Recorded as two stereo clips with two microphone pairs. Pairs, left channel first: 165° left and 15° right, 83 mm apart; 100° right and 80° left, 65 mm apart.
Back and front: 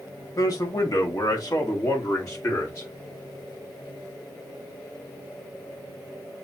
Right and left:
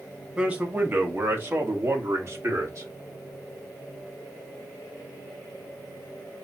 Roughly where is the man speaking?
Behind left.